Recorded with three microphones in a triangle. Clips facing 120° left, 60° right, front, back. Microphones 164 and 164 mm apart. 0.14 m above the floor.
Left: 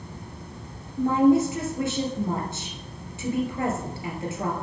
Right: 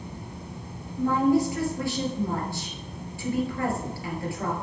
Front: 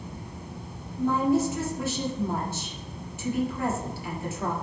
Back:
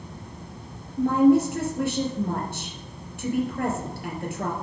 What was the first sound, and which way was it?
A woman speaking, 175° right.